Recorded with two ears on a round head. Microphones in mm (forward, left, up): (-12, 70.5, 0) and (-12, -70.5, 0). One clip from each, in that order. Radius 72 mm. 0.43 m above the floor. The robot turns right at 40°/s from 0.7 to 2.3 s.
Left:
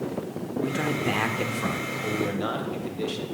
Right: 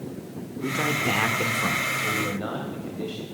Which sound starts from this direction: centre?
A man speaking, at 0.6 s.